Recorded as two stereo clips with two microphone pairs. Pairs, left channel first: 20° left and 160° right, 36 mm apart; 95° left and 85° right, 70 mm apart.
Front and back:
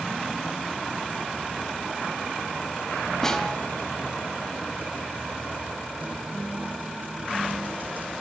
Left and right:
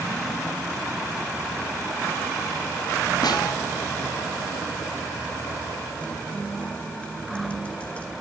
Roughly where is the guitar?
Behind.